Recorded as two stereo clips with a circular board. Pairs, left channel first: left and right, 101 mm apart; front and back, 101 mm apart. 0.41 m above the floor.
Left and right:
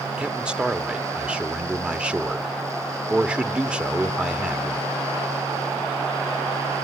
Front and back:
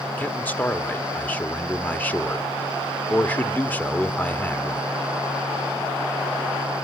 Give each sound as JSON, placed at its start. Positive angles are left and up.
{"t": 0.2, "sound": "a man speaking", "azimuth_deg": -30, "distance_m": 1.0}